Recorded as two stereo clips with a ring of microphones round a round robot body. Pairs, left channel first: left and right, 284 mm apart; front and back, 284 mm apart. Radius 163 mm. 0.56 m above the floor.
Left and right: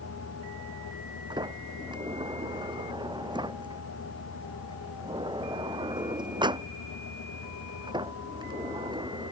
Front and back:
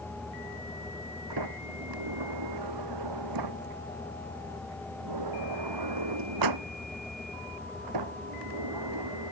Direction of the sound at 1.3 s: 165° right.